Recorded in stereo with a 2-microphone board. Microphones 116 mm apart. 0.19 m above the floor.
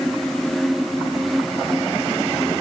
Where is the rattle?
I don't hear a rattle.